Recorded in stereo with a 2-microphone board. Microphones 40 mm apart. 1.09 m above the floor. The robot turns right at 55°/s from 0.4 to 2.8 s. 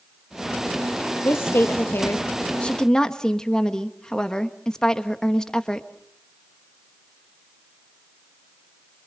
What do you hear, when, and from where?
1.2 s a woman speaking: 80° left, 1.4 m; by 5.9 s 165° left, 1.4 m